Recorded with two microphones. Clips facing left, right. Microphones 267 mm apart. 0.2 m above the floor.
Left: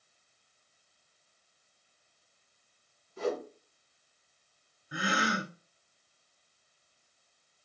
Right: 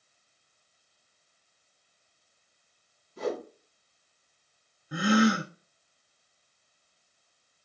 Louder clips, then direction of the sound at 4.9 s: Right 11 dB; 50° right (ahead or behind).